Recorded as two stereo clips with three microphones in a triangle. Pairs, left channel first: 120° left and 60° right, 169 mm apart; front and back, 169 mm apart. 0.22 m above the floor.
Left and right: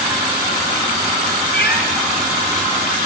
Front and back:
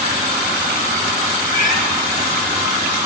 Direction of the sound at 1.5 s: 120° left.